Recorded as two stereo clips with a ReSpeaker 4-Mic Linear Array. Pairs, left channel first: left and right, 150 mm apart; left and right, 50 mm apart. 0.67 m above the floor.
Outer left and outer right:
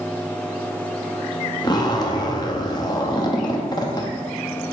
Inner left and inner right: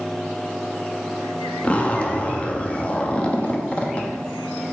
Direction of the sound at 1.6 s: 30° left (ahead or behind).